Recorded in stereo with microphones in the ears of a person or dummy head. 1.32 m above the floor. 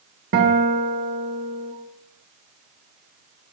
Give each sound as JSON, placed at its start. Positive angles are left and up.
{"t": 0.3, "sound": "a guitar", "side_deg": -55, "distance_m": 1.3}